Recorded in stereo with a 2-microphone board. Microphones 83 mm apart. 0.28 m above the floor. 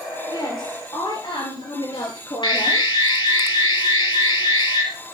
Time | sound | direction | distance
0.3 | a woman speaking | 60° left (ahead or behind) | 5.5 m
2.4 | an alarm | 65° left (ahead or behind) | 5 m